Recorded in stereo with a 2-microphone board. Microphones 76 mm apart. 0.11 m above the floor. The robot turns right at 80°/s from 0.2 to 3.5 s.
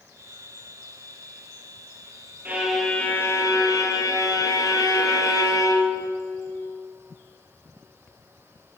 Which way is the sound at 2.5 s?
25° right.